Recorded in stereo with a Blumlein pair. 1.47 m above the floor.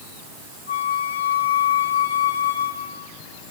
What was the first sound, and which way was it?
A flute, 70° left.